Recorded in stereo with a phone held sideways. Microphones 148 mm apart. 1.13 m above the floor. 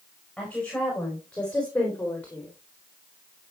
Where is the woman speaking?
5° left (ahead or behind), 4.5 m; by 2.5 s 10° left (ahead or behind), 3 m.